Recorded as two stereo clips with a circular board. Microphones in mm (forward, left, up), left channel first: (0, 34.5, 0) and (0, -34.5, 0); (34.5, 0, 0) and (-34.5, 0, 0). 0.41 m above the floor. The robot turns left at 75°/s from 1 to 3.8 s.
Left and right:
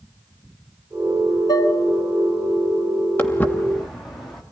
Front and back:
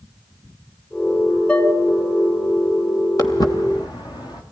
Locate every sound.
1.5 s dishes clattering: 75° left, 3 m; by 1.7 s 55° left, 3 m
3.2 s footsteps: 35° left, 2.5 m; by 4.4 s 5° left, 3.5 m